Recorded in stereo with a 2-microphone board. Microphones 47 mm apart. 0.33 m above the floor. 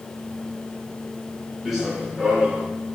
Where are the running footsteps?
Centre (ahead or behind), 3 m; by 2.7 s 30° right (ahead or behind), 3.5 m.